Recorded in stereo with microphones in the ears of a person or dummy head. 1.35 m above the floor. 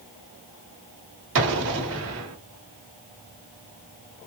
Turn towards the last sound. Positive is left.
turn(degrees=-65)  # may be behind; listen again after turning